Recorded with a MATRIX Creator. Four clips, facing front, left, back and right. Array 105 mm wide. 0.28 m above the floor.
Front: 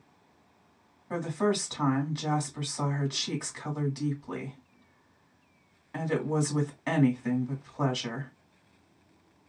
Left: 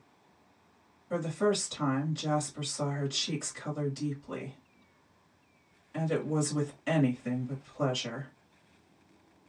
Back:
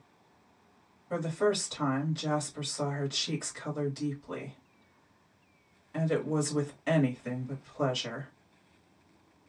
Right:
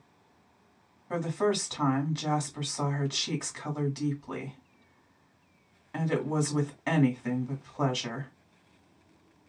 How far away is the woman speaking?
About 2 m.